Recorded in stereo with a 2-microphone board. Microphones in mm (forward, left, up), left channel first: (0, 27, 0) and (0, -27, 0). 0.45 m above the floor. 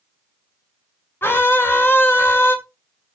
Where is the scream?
45° left (ahead or behind), 2.5 m.